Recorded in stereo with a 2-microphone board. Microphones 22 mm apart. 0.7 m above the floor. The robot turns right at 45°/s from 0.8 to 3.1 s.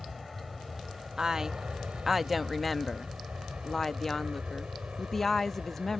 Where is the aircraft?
10° right (ahead or behind); by 6.0 s 55° right (ahead or behind).